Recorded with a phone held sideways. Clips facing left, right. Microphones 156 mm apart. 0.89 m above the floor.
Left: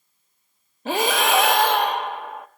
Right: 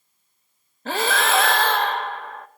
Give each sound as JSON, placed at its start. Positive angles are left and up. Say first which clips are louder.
{"t": 0.8, "sound": "breathing", "louder": "left 2 dB", "side_deg": 15, "distance_m": 0.7}